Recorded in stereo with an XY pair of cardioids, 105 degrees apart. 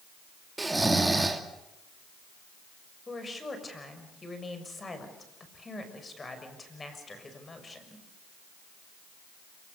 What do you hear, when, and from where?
0.6 s snoring: 15° right, 2 m
3.1 s a woman speaking: 25° left, 6 m